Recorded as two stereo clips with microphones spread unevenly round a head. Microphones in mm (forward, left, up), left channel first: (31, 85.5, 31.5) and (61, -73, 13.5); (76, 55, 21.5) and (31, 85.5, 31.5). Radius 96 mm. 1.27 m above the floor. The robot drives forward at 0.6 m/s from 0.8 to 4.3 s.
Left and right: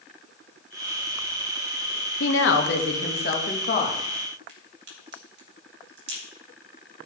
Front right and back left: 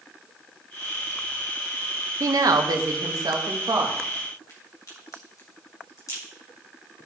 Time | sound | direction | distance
2.2 | a woman speaking | 130° left | 1.1 m
4.5 | a crack | 70° right | 3.5 m